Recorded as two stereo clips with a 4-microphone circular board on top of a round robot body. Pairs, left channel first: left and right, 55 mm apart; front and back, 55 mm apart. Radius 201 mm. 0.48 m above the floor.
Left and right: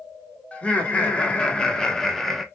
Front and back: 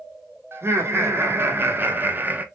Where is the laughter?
150° left, 2 m; by 2.5 s 175° left, 1.4 m.